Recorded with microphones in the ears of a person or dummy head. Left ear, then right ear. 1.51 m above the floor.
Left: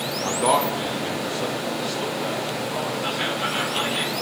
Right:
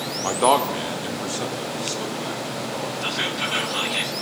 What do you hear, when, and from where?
0.2 s a man speaking: 30° right (ahead or behind), 0.5 m; by 2.9 s 90° right, 3.5 m
3.0 s whispering: 50° right (ahead or behind), 1.4 m